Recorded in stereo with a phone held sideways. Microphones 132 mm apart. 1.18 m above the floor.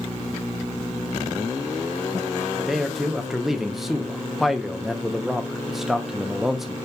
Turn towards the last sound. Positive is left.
turn(degrees=0)  # may be behind; listen again after turning